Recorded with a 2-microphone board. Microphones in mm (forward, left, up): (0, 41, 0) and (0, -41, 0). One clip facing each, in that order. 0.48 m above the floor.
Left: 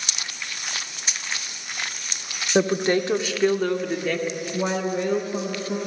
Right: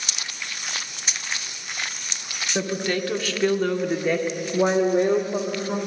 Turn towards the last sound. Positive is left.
turn(degrees=-50)  # may be behind; listen again after turning